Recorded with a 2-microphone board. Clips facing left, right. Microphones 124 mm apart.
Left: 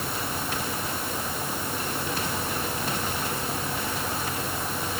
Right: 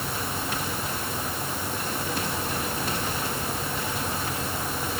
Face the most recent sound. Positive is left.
No sound to turn to.